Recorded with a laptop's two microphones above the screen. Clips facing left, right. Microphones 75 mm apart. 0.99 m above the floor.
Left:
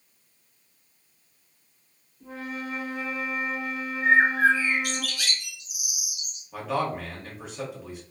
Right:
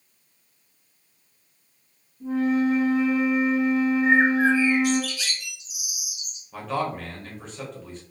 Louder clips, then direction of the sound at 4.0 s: Left 2 dB; 55° left (ahead or behind).